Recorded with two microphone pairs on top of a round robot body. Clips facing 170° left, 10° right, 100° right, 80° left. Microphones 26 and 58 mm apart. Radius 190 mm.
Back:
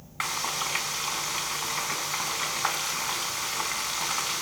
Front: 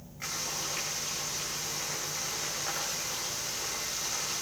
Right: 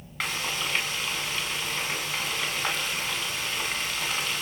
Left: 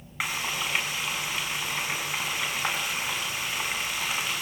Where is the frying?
160° left, 4.5 m.